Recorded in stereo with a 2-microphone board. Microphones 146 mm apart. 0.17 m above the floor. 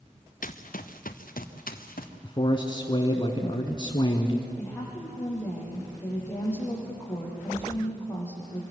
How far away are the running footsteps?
About 1.2 m.